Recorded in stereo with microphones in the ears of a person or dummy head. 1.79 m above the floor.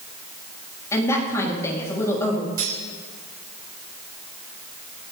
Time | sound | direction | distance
0.9 | a woman speaking | 20° left (ahead or behind) | 4.5 m
2.6 | cutlery clinking | 50° right (ahead or behind) | 8 m